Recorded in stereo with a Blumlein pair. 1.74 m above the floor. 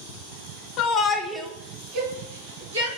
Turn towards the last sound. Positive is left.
turn(degrees=-60)